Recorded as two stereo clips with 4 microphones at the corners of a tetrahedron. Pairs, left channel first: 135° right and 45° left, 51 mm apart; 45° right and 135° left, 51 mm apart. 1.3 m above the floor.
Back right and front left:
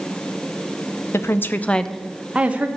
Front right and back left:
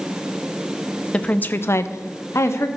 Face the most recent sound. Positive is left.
turn(degrees=-15)